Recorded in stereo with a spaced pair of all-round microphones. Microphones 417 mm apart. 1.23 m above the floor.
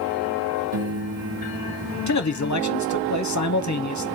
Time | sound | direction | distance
0.7 | a piano | 35° right (ahead or behind) | 1.8 m
2.1 | a man speaking | 45° left (ahead or behind) | 0.6 m